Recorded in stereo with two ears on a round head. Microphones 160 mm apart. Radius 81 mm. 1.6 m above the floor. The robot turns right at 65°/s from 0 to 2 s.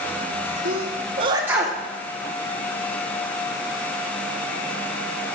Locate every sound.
0.7 s a sneeze: 65° right (ahead or behind), 1.5 m; by 1.8 s 10° left (ahead or behind), 1.5 m